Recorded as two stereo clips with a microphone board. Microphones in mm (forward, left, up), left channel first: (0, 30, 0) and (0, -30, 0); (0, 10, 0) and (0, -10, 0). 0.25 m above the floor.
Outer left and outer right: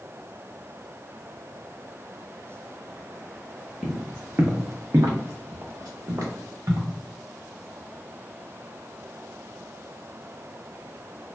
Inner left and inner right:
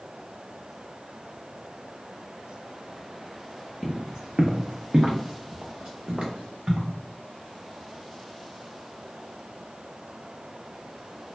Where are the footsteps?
20° right (ahead or behind), 0.9 m; by 6.9 s 55° right (ahead or behind), 1.5 m.